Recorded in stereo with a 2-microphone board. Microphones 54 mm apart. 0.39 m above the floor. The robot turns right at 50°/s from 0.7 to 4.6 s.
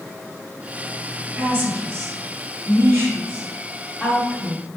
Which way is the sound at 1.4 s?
20° right (ahead or behind).